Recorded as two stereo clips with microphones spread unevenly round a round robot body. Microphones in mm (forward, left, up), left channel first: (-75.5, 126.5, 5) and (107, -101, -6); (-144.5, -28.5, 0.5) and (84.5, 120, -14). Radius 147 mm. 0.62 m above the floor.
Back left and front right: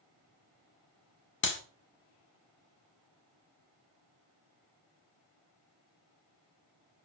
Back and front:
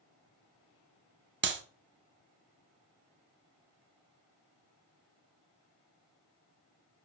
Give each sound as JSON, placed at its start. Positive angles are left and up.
{"t": 1.4, "sound": "a clap", "azimuth_deg": 80, "distance_m": 1.5}